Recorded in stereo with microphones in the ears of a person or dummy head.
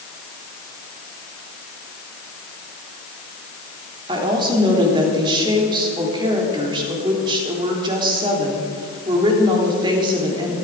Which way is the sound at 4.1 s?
25° right (ahead or behind).